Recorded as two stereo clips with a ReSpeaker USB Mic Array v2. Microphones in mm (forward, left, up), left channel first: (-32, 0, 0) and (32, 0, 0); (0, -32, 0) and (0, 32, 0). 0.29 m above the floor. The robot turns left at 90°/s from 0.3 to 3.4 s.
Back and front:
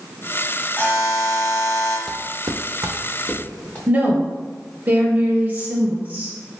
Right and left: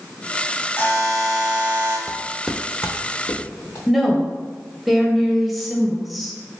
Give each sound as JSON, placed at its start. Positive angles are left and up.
{"t": 0.8, "sound": "a buzzer", "azimuth_deg": -135, "distance_m": 1.7}
{"t": 2.1, "sound": "footsteps", "azimuth_deg": 100, "distance_m": 0.5}
{"t": 3.9, "sound": "a woman speaking", "azimuth_deg": 0, "distance_m": 1.0}